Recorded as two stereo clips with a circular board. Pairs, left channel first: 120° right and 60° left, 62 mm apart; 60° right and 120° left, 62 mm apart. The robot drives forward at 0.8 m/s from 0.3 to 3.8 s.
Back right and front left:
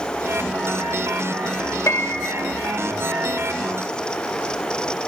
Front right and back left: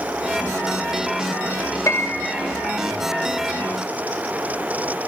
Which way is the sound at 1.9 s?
85° right.